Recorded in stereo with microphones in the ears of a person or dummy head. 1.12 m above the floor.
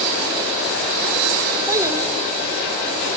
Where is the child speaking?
20° right (ahead or behind), 0.7 m.